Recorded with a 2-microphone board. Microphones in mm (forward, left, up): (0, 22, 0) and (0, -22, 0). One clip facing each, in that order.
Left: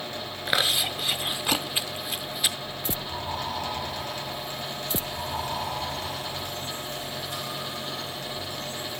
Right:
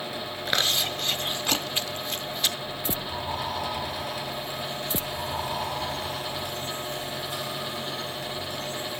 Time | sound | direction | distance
0.5 | chewing | 10° left (ahead or behind) | 0.7 m